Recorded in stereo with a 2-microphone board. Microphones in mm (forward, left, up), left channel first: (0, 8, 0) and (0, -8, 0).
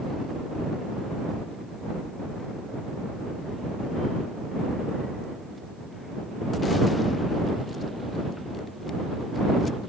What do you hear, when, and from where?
Only background noise.